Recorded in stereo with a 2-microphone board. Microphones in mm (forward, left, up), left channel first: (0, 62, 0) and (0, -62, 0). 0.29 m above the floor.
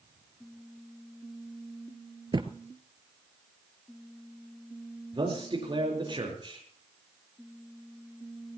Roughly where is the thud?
Right.